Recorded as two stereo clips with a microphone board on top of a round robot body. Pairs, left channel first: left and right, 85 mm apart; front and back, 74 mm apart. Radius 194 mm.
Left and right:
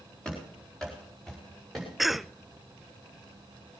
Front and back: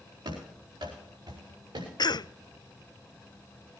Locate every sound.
0.2 s running footsteps: 170° left, 5.5 m; by 1.9 s straight behind, 5 m
2.0 s a cough: straight ahead, 0.6 m